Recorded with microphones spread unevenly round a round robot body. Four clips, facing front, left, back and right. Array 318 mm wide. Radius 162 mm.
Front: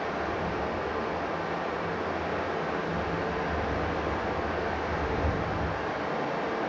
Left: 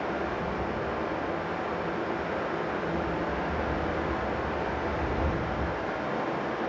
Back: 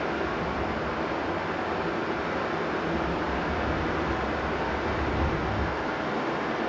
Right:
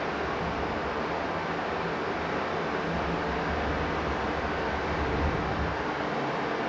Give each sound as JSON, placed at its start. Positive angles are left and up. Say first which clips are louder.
{"t": 0.0, "sound": "running water", "louder": "even, back 2 dB", "azimuth_deg": -135, "distance_m": 1.6}